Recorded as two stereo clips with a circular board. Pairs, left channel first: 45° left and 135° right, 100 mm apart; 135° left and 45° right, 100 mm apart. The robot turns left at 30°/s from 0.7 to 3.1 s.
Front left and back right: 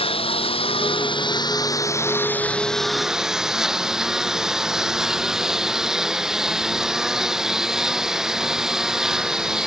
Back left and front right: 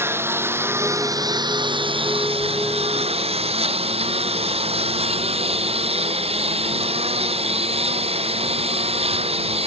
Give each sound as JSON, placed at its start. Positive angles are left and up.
{"t": 0.0, "sound": "a lawn mower", "azimuth_deg": 20}